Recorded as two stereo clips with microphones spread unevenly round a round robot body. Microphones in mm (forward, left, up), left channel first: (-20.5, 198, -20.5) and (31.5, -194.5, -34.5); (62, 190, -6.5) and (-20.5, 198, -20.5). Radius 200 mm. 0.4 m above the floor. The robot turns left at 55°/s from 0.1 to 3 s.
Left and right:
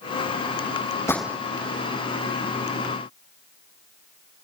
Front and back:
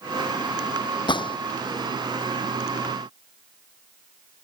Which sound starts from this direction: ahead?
A gunshot, at 1.1 s.